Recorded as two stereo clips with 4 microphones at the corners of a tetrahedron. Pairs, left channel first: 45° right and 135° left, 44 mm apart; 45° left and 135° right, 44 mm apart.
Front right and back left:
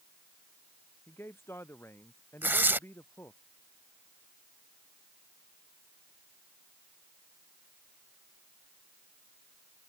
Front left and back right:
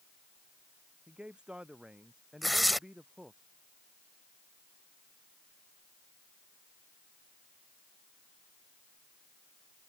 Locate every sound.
1.1 s a man speaking: 70° right
2.4 s tearing paper: 135° left